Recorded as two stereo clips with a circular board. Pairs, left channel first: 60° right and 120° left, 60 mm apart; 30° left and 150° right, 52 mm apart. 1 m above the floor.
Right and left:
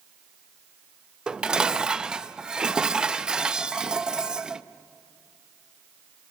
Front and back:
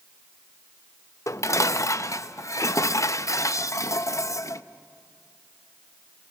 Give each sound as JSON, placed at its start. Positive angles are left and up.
{"t": 1.3, "sound": "dishes clattering", "azimuth_deg": 45, "distance_m": 0.5}